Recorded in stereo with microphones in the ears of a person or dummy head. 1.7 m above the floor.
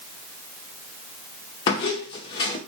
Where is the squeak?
20° left (ahead or behind), 0.7 m.